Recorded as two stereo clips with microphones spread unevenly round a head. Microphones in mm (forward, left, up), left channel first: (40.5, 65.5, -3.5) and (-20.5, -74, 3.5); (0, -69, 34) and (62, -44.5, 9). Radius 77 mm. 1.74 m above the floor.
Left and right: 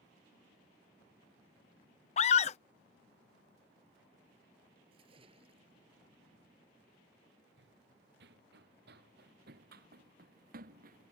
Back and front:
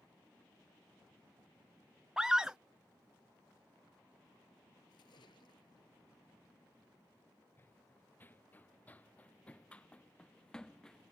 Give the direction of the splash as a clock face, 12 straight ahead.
6 o'clock.